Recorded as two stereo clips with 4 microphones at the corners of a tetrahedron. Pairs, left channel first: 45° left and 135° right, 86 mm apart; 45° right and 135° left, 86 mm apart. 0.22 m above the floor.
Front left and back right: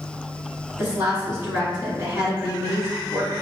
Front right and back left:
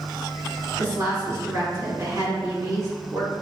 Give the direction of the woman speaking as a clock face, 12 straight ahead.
6 o'clock.